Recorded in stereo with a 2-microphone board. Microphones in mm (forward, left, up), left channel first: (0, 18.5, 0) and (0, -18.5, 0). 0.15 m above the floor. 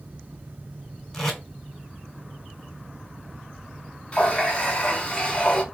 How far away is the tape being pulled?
About 1.2 m.